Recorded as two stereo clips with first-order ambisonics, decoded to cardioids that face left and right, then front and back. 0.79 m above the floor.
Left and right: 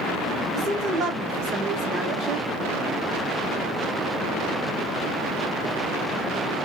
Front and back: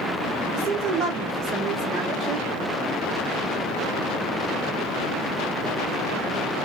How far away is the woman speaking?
About 3 m.